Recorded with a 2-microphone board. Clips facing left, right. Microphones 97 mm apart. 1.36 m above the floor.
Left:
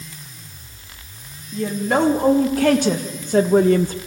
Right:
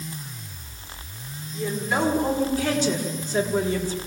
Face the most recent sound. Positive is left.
turn(degrees=60)  # may be behind; listen again after turning